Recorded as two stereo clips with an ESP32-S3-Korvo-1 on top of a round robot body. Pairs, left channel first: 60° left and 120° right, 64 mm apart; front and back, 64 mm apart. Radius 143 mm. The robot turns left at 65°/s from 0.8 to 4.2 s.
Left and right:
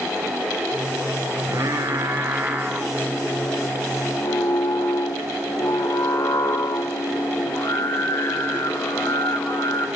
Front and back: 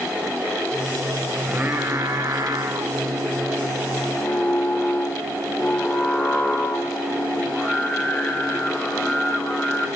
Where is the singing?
110° right, 2.5 m; by 9.9 s 70° left, 2.5 m.